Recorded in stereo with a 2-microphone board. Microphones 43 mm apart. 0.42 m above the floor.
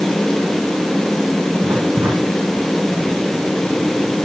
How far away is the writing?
About 8 m.